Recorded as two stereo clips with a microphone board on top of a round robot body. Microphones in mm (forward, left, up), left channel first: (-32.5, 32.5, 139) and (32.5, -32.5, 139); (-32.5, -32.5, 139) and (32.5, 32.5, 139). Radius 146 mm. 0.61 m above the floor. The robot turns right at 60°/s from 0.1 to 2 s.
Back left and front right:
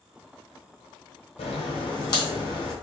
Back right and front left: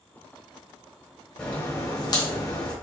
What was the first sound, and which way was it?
A crack, 145° left.